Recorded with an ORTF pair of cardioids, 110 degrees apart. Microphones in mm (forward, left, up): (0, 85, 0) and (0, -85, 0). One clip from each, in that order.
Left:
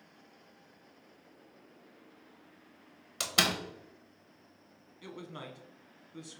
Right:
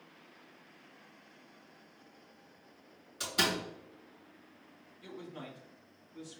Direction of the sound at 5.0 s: 65° left.